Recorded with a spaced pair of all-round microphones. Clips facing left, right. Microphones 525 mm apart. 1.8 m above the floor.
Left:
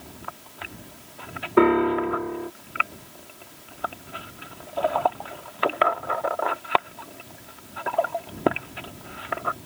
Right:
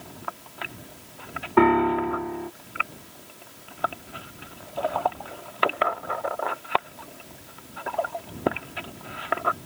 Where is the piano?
15° right (ahead or behind).